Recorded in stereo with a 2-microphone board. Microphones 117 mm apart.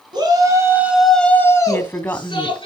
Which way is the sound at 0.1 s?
40° right (ahead or behind).